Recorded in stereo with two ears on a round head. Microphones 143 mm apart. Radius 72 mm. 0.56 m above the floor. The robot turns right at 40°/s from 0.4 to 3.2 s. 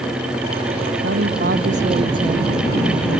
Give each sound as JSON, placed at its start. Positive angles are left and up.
{"t": 1.0, "sound": "a woman speaking", "azimuth_deg": -75}